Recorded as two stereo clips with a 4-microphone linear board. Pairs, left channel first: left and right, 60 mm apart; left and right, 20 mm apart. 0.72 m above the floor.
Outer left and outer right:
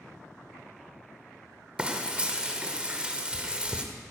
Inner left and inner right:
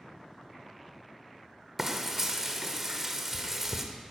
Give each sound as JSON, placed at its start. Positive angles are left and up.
{"t": 1.8, "sound": "frying", "side_deg": -20, "distance_m": 1.1}